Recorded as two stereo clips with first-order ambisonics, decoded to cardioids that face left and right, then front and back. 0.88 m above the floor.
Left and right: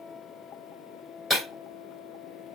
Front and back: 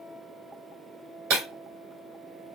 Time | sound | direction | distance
1.3 | breaking glass | 175° right | 2 m